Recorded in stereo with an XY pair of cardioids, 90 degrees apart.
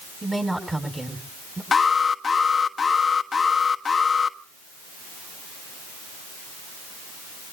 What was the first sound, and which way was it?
A woman speaking, 15° right.